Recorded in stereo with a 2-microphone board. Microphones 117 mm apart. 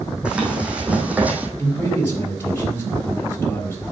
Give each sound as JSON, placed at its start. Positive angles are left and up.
{"t": 0.2, "sound": "running footsteps", "side_deg": -10, "distance_m": 2.0}
{"t": 1.6, "sound": "a man speaking", "side_deg": 20, "distance_m": 4.0}